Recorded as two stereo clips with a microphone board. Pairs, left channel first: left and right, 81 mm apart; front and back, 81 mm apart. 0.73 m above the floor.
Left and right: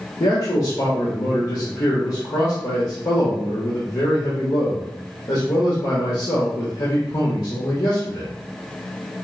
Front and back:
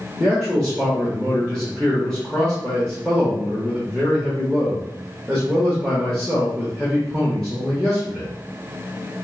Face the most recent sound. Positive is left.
turn(degrees=90)